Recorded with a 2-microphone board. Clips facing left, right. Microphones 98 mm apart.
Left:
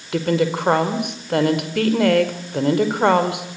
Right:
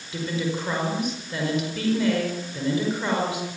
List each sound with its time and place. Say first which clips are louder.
0.1 s a woman speaking: left 8 dB; 65° left (ahead or behind), 4.5 m